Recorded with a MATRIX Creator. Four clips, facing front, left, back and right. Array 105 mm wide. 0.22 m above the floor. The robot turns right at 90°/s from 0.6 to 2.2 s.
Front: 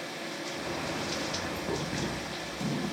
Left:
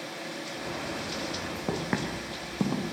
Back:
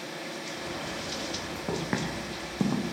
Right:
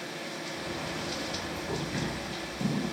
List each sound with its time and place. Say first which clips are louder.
1.7 s footsteps: left 4 dB, back 4 dB; 105° left, 2 m; by 2.9 s 130° left, 2.5 m